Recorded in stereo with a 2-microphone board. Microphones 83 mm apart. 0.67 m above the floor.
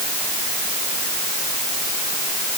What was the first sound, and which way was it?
Only background noise.